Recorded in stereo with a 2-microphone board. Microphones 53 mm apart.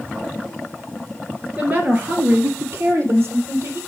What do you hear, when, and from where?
1.6 s a woman speaking: 30° right (ahead or behind), 2.0 m; by 3.8 s 50° right (ahead or behind), 3.5 m